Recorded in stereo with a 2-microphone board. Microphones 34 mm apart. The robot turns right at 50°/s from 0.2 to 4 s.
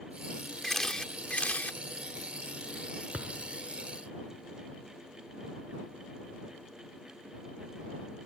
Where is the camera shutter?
10° left; by 1.8 s 70° left.